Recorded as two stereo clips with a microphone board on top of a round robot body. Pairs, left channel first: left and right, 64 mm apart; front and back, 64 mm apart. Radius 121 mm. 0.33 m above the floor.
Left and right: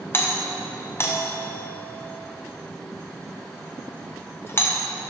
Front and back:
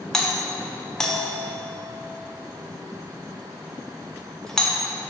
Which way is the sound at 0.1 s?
75° left.